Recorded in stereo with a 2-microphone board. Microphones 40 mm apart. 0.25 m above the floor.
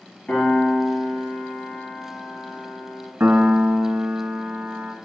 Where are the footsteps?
No footsteps in this recording.